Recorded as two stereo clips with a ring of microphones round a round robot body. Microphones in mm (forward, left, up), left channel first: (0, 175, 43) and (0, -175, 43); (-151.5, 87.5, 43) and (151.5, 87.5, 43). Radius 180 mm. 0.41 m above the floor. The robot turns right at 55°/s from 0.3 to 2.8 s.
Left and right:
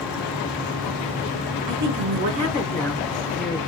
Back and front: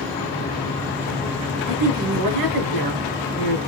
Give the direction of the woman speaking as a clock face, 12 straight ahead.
2 o'clock.